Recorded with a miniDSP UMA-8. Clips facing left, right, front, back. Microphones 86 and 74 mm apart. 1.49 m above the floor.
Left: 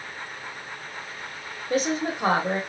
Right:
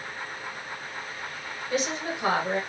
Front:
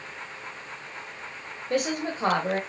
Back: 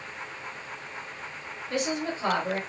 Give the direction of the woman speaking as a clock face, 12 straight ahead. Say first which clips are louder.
Left 4 dB, front 2 dB; 11 o'clock.